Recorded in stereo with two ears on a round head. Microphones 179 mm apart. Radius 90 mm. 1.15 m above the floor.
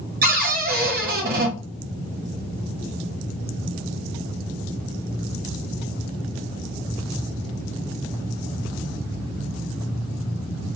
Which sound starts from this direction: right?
A cupboard door, at 0.2 s.